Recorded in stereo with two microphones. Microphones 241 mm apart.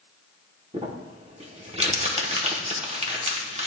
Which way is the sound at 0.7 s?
25° right (ahead or behind).